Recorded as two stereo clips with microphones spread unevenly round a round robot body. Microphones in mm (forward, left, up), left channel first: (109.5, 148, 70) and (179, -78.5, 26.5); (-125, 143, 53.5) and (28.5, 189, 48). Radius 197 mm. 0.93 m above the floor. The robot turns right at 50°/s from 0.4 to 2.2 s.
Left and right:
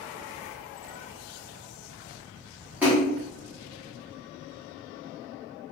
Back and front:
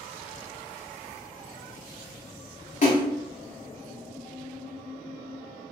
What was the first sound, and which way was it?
A splash, 145° right.